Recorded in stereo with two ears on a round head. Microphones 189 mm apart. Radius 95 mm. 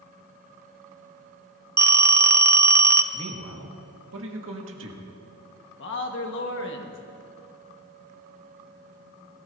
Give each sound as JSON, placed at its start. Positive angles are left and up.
{"t": 1.8, "sound": "a phone ringing", "side_deg": -10, "distance_m": 0.5}
{"t": 3.1, "sound": "a man speaking", "side_deg": -65, "distance_m": 1.8}
{"t": 5.8, "sound": "a man speaking", "side_deg": 60, "distance_m": 1.5}